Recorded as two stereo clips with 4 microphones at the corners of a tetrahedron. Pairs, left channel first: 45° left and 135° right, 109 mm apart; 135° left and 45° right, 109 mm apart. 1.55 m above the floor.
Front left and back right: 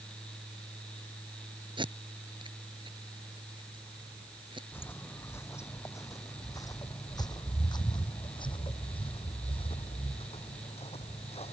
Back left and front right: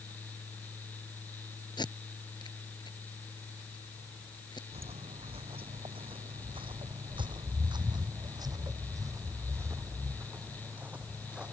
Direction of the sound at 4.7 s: 25° right.